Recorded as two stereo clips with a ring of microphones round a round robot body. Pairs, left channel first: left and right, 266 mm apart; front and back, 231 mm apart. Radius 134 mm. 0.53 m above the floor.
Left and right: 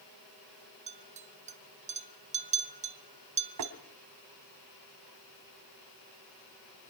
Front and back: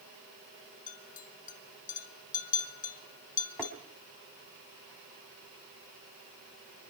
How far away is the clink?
About 0.8 m.